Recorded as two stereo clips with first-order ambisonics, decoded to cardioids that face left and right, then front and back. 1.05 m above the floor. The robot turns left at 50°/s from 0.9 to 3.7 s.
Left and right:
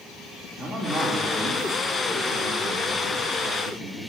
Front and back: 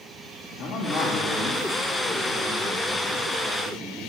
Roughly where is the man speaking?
Ahead.